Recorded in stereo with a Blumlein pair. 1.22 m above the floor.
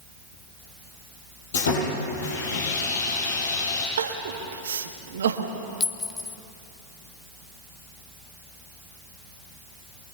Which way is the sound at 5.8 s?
15° left.